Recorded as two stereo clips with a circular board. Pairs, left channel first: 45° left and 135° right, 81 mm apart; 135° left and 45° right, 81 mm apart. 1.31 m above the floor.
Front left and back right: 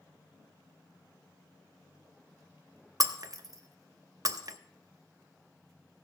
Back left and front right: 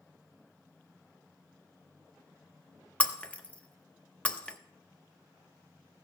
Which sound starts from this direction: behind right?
Breaking glass, at 3.0 s.